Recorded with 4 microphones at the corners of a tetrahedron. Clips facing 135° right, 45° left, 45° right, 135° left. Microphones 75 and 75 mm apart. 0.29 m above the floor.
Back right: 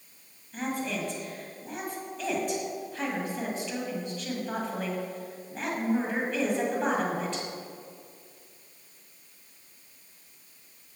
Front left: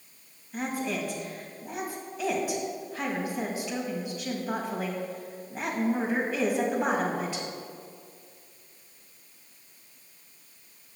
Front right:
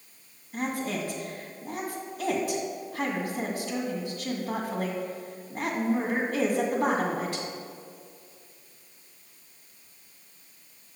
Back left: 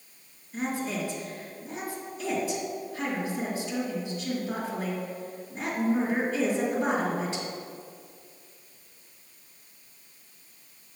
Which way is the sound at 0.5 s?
35° right.